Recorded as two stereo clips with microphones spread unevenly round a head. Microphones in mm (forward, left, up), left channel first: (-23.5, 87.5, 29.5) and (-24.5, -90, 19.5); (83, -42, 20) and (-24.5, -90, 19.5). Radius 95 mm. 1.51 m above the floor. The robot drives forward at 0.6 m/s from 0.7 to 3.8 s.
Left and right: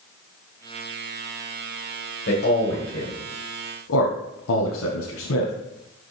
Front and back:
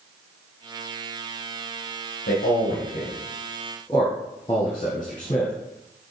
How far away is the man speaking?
About 1.3 m.